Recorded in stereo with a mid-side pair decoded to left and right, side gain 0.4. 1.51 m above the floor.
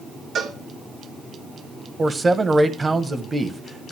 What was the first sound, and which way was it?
A cowbell, 70° right.